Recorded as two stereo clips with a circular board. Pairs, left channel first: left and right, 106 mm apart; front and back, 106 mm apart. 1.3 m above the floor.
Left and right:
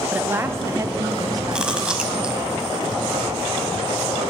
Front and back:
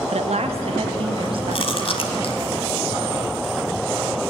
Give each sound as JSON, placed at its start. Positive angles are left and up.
{"t": 0.1, "sound": "a woman speaking", "azimuth_deg": -165, "distance_m": 1.1}
{"t": 1.5, "sound": "chewing", "azimuth_deg": -10, "distance_m": 1.9}